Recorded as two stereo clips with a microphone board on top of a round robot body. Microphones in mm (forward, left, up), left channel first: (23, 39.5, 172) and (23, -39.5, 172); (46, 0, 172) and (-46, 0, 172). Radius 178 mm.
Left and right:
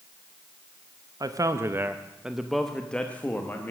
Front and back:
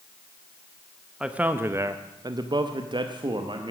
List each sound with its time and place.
1.2 s a man speaking: 100° right, 0.8 m; by 3.7 s 155° left, 1.3 m